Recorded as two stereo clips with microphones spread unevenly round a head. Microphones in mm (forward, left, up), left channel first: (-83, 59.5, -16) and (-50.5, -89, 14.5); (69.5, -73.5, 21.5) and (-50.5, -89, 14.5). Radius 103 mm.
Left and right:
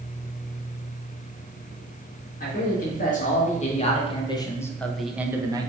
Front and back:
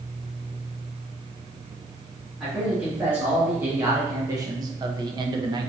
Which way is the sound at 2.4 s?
105° left.